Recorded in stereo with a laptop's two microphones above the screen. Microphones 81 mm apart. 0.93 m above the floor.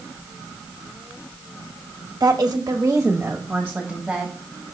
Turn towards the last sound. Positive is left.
turn(degrees=0)  # may be behind; listen again after turning